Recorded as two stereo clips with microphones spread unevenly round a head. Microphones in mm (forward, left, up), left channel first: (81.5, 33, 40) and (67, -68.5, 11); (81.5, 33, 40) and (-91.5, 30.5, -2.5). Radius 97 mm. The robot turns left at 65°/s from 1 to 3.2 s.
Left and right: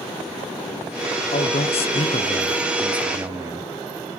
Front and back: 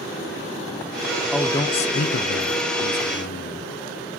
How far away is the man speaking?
About 0.5 m.